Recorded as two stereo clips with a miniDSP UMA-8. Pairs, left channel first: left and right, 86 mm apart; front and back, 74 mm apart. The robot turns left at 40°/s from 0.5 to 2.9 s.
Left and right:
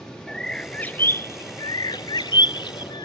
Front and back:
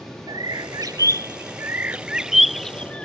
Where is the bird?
170° left; by 3.0 s 75° left.